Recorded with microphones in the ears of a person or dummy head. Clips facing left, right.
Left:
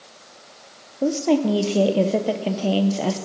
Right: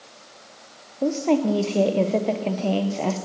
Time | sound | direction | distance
1.0 | a woman speaking | 10° left (ahead or behind) | 0.6 m